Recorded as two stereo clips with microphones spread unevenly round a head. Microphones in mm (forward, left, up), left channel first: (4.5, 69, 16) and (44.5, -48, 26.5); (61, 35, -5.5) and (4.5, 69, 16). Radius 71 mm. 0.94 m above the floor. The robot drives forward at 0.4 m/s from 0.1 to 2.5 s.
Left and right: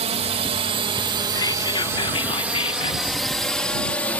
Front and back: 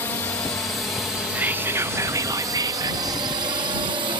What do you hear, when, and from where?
0.0 s a drone: 70° right; by 4.2 s 175° right
1.4 s whispering: 75° left; by 3.2 s 120° left